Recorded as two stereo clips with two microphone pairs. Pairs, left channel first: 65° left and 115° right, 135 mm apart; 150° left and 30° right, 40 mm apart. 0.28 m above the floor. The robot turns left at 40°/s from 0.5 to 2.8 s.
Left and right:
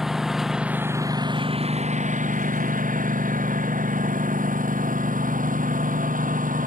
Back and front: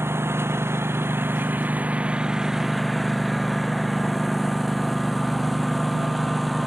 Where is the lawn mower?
30° right; by 6.7 s 120° right.